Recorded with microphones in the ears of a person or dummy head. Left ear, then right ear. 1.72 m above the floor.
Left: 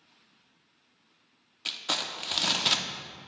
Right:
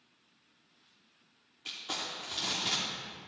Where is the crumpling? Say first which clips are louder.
Left 7 dB; 40° left (ahead or behind), 0.7 m.